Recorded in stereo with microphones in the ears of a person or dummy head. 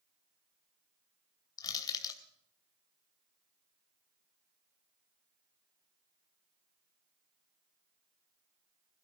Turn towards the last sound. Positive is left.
turn(degrees=20)  # may be behind; listen again after turning